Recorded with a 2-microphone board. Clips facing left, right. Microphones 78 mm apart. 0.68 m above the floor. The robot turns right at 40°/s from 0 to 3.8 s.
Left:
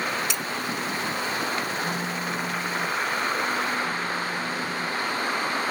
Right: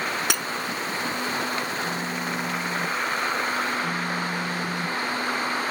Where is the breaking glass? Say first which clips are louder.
Right 3 dB; 80° right.